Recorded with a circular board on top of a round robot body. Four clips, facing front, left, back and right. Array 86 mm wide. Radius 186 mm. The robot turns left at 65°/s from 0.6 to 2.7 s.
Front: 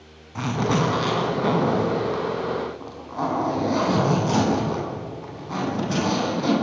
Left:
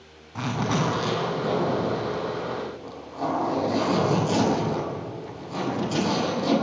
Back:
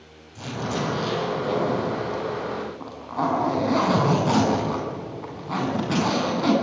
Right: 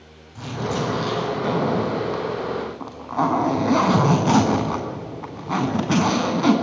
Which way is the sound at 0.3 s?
35° left.